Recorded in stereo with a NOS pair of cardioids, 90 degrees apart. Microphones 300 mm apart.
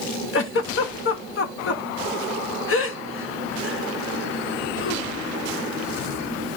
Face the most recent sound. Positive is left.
turn(degrees=45)